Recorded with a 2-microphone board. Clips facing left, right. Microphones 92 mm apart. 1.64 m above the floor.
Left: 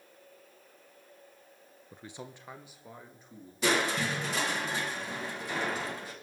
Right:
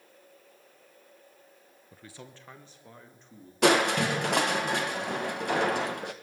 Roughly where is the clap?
No clap in this recording.